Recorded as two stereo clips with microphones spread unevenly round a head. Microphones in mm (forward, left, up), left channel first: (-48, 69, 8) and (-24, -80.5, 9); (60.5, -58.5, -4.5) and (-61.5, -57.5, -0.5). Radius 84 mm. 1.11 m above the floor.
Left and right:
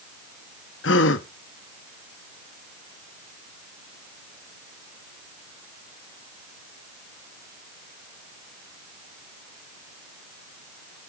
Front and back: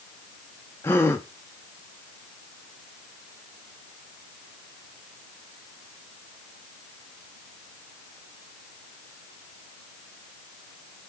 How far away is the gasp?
About 1.0 m.